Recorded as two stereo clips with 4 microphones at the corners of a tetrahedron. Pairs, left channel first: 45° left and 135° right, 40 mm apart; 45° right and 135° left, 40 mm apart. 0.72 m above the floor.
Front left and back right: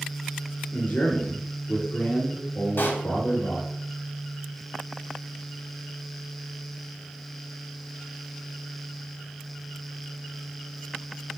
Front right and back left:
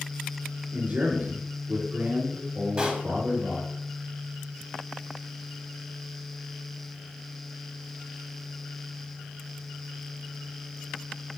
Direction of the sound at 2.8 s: 70° left.